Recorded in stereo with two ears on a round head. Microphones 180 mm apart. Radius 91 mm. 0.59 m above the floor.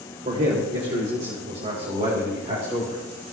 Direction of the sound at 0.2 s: 40° right (ahead or behind).